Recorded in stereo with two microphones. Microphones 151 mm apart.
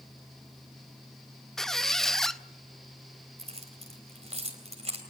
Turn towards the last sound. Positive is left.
turn(degrees=-45)  # may be behind; listen again after turning